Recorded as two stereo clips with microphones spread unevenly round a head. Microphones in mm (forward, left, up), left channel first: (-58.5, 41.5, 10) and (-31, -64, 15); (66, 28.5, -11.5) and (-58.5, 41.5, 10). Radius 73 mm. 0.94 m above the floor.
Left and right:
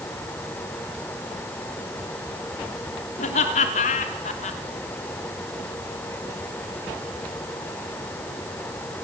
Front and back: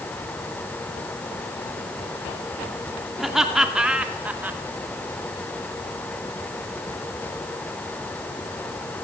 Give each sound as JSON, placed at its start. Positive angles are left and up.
{"t": 3.2, "sound": "laughter", "azimuth_deg": 85, "distance_m": 3.0}